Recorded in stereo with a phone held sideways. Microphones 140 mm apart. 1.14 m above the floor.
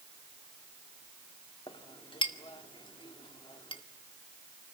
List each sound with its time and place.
1.7 s a clink: 35° left (ahead or behind), 1.9 m